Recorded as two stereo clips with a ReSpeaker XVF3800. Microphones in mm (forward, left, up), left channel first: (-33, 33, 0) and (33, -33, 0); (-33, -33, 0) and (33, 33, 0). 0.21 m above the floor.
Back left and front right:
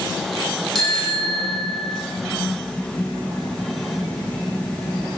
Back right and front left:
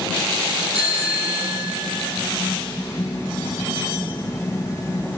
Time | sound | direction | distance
0.8 | a bicycle bell | 50° left | 8 m